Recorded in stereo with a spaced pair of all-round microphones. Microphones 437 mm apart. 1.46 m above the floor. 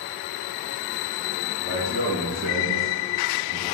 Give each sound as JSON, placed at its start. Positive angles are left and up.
{"t": 1.6, "sound": "a man speaking", "side_deg": -90, "distance_m": 2.5}